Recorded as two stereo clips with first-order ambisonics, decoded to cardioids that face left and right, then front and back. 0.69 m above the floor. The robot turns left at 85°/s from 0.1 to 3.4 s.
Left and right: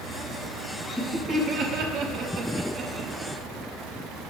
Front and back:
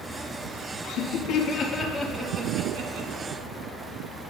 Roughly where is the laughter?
Ahead.